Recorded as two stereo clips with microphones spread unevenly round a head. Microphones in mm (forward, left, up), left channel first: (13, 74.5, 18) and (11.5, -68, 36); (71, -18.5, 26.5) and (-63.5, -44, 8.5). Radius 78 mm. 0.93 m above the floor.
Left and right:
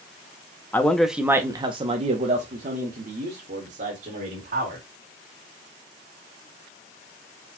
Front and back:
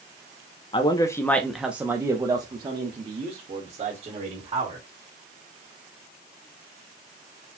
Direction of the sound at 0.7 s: 40° left.